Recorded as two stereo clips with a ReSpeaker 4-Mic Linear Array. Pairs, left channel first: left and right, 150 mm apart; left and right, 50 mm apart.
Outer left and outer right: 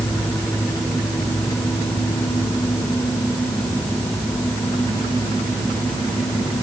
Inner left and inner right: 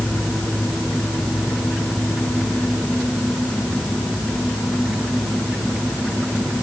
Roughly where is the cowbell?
No cowbell in this recording.